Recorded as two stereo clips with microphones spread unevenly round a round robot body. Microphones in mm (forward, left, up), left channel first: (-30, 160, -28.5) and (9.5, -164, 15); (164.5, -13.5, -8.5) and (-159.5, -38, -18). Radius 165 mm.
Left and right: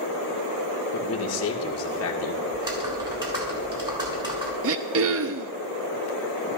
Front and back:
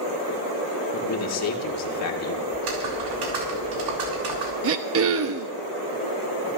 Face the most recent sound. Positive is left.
turn(degrees=-135)